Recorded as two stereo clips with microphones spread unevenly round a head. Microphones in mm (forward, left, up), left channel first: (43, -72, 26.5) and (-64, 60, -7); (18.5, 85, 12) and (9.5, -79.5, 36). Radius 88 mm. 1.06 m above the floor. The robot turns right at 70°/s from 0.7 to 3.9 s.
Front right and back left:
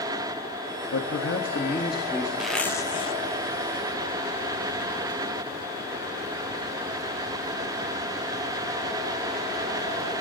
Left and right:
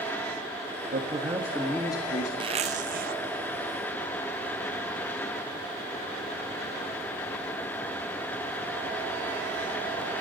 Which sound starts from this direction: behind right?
A zipper, at 2.4 s.